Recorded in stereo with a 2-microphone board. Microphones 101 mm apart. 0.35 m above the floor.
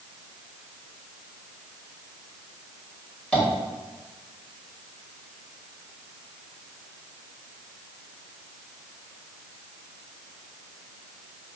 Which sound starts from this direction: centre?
Tapping, at 3.3 s.